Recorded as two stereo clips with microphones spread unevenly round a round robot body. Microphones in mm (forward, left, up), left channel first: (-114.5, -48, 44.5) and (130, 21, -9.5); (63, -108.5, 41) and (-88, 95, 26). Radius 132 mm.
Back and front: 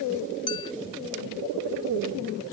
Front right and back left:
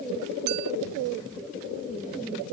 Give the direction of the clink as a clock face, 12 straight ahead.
8 o'clock.